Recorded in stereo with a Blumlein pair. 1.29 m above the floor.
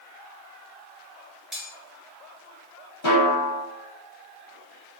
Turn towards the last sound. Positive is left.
turn(degrees=50)